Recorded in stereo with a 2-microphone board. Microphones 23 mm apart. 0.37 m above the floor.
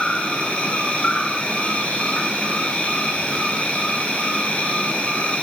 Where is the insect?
65° left (ahead or behind), 7.5 m.